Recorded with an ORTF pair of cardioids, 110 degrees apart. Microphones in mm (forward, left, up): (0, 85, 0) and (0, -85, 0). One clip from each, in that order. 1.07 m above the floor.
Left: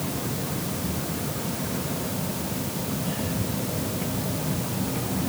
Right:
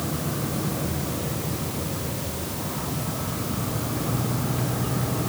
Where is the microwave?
I don't hear a microwave.